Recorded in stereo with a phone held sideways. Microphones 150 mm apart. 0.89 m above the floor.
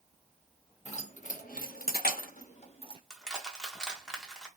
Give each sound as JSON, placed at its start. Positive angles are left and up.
{"t": 0.8, "sound": "keys jangling", "side_deg": 50, "distance_m": 1.0}
{"t": 3.1, "sound": "crushing", "side_deg": 5, "distance_m": 0.9}